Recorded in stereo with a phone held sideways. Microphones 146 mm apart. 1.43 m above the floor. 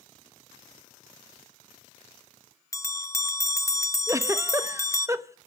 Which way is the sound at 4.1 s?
20° right (ahead or behind).